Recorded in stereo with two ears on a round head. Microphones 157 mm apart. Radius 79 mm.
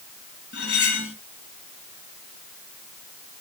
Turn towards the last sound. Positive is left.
turn(degrees=65)  # may be behind; listen again after turning